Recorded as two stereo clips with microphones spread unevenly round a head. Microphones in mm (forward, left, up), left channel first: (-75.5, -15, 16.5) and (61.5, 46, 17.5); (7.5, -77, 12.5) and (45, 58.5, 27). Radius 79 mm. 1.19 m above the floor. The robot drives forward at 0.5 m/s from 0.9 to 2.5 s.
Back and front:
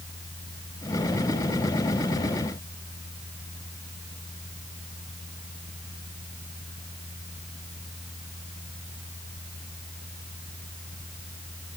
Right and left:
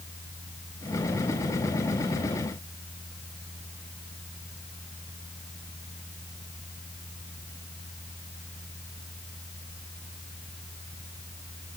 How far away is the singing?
No singing in this recording.